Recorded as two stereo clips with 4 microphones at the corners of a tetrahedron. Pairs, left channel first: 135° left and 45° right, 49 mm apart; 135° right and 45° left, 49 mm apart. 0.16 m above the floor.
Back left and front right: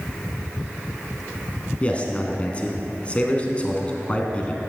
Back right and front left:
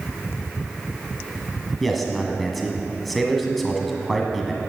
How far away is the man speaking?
About 1.3 m.